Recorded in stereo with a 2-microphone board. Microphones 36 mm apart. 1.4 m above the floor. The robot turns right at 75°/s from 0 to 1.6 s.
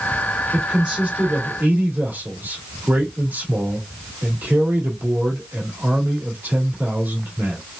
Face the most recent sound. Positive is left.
turn(degrees=-100)